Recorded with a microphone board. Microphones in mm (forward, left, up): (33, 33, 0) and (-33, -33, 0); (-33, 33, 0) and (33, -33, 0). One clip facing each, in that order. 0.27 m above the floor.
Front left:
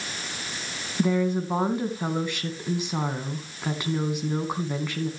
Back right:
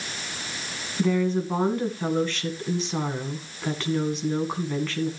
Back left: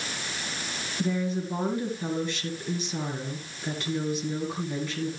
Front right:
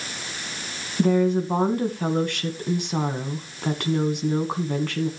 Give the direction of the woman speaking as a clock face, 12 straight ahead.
1 o'clock.